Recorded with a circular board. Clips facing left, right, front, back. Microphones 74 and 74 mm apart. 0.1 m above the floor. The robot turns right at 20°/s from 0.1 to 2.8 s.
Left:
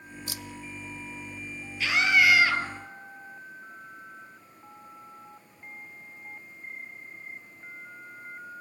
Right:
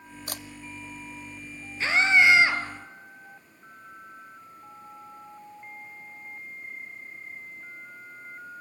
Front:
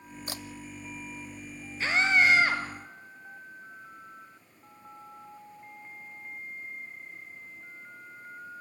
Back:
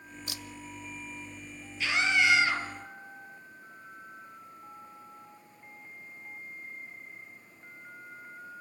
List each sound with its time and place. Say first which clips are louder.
0.3 s a camera shutter: right 3 dB, front 4 dB; 50° right, 0.8 m; by 0.4 s 45° right, 0.8 m
1.8 s a scream: right 2 dB, front 3 dB; 40° right, 2.5 m; by 2.6 s 25° right, 2.5 m